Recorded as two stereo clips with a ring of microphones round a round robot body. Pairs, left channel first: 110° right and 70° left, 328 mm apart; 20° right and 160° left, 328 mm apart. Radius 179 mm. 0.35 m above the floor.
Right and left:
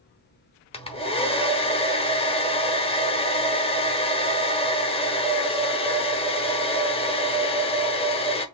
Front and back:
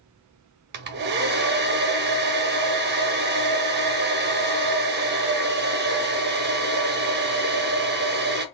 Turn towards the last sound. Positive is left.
turn(degrees=-175)